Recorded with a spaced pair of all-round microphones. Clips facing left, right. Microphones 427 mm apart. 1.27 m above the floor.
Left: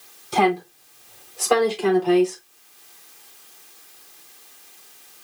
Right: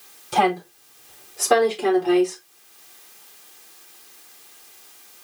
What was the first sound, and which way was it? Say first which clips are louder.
A woman speaking: left 2 dB; 30° right (ahead or behind).